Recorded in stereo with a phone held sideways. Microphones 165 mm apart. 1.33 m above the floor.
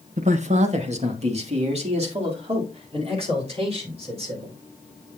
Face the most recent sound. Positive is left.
turn(degrees=-35)  # may be behind; listen again after turning